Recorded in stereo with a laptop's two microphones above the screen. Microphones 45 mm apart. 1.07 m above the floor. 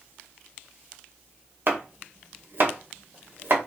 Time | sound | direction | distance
1.7 | chopping | 50° right (ahead or behind) | 1.1 m